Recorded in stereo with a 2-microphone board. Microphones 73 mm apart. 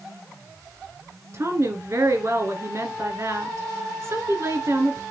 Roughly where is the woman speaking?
Right.